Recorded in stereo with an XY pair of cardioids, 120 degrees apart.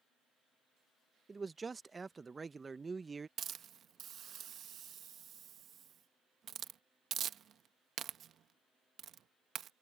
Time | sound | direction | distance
1.3 | a man speaking | 20° right | ?
3.4 | a hiss | 50° right | ?